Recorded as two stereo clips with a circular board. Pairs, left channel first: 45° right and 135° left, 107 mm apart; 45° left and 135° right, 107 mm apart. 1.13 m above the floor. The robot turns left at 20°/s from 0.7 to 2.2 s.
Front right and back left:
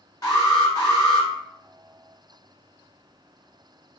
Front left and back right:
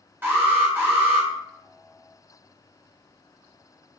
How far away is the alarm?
About 1.0 m.